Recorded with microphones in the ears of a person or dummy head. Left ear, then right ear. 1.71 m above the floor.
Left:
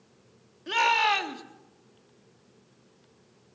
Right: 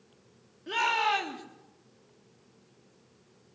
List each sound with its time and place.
0.7 s a shout: 25° left (ahead or behind), 3.5 m